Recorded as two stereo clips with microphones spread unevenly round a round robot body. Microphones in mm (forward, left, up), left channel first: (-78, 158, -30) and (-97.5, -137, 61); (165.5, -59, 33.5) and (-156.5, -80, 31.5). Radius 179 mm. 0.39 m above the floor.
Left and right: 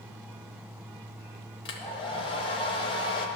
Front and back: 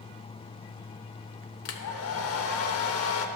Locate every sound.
1.6 s a hair dryer: 35° left, 0.7 m